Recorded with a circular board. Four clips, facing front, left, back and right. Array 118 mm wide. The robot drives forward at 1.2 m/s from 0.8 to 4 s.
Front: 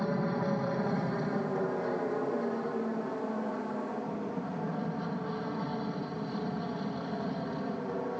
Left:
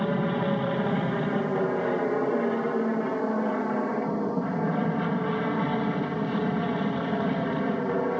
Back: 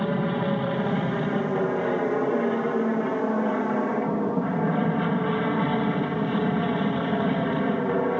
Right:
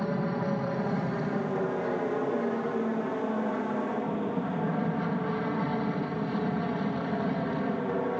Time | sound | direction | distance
0.0 | an aircraft | 140° left | ?